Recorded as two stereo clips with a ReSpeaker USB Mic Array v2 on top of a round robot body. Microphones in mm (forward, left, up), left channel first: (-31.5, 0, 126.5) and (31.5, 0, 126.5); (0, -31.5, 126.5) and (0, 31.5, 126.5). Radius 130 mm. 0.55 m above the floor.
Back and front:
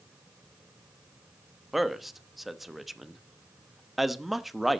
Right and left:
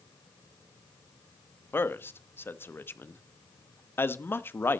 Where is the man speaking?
85° right, 1.1 m.